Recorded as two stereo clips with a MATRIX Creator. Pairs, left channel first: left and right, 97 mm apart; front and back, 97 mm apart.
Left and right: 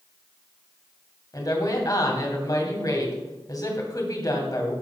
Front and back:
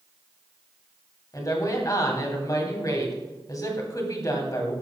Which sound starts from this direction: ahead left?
A woman speaking, at 1.3 s.